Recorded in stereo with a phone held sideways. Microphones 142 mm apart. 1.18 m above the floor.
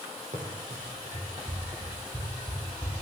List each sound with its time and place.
0.3 s running footsteps: 60° right (ahead or behind), 3 m; by 2.9 s 15° right (ahead or behind), 3 m